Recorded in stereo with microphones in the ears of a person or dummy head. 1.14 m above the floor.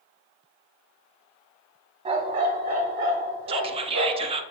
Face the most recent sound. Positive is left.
turn(degrees=-30)  # may be behind; listen again after turning